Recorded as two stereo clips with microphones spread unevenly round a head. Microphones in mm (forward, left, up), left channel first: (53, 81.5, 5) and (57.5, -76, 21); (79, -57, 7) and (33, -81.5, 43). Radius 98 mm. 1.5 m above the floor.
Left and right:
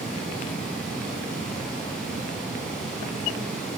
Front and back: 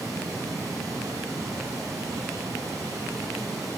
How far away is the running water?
About 6.5 m.